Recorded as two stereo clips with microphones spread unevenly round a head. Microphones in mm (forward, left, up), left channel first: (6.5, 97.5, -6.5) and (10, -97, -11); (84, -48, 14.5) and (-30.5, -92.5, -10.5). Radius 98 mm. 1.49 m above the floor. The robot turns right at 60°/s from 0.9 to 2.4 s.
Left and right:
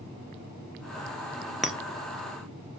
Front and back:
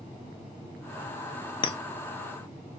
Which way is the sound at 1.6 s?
Straight ahead.